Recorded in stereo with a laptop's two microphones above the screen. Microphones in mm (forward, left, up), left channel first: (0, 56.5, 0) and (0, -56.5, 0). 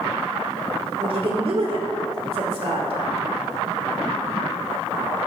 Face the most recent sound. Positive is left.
turn(degrees=-60)  # may be behind; listen again after turning